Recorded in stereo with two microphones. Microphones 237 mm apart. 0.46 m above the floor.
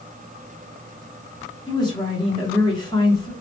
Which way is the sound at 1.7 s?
20° left (ahead or behind).